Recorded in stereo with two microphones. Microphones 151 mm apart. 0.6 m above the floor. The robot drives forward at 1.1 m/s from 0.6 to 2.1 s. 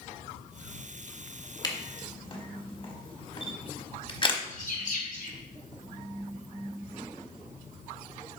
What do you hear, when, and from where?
1.6 s a camera shutter: 30° left (ahead or behind), 1.2 m; by 4.4 s 35° left (ahead or behind), 1.0 m
4.5 s a bird: 65° left (ahead or behind), 2.5 m